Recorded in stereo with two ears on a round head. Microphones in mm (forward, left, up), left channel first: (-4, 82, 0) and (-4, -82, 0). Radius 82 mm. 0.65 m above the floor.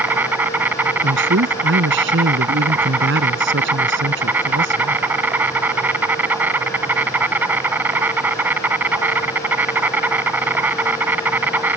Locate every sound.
0.0 s an insect: 10° right (ahead or behind)
1.0 s a man speaking: 65° right (ahead or behind)